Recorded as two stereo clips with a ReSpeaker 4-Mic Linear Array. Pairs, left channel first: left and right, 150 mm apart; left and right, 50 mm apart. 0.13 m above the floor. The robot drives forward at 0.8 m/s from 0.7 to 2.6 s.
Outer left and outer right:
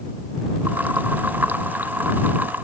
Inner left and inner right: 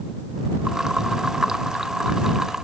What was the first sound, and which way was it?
Only background noise.